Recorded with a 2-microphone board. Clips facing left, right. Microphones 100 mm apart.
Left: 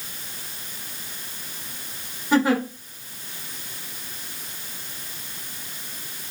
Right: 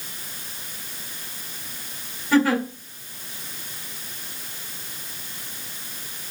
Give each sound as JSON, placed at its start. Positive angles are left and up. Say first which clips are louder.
{"t": 2.3, "sound": "a giggle", "louder": "right 1 dB", "side_deg": 20, "distance_m": 1.8}